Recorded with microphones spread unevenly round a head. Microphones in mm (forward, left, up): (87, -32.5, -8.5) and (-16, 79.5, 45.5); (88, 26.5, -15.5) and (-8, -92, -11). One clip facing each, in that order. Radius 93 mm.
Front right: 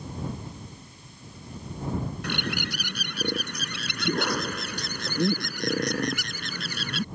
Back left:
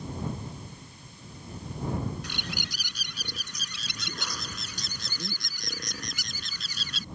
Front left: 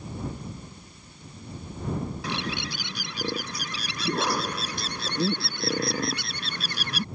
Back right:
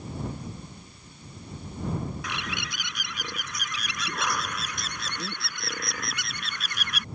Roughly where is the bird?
Ahead.